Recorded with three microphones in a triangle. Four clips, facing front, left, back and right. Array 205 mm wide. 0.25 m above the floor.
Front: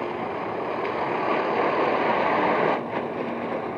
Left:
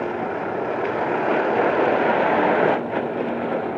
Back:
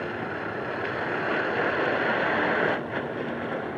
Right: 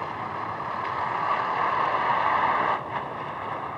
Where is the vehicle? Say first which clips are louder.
Left 6 dB, front 3 dB; 75° left; by 3.8 s 80° left.